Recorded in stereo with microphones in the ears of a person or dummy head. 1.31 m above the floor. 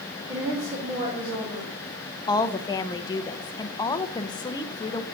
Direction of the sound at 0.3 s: 25° right (ahead or behind).